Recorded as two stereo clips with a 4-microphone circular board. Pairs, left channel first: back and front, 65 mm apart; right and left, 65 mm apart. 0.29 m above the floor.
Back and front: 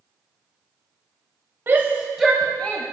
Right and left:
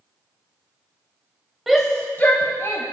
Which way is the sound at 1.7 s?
10° left.